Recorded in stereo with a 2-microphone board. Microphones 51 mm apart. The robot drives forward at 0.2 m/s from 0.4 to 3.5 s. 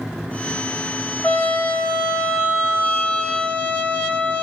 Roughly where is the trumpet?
Left.